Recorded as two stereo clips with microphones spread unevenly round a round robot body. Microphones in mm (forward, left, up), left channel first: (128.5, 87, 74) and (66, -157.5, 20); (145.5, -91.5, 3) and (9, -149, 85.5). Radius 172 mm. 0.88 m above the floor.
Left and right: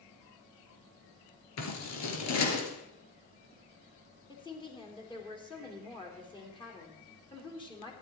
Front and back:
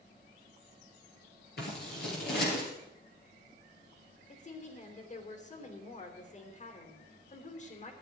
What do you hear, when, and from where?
1.6 s scissors: 70° left, 3 m
4.3 s a woman speaking: straight ahead, 3.5 m